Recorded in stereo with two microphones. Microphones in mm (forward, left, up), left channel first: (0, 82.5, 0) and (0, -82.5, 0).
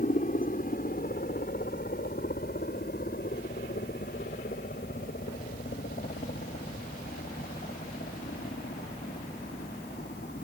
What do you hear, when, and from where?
0.0 s a helicopter: 55° left (ahead or behind); by 10.4 s 75° left (ahead or behind)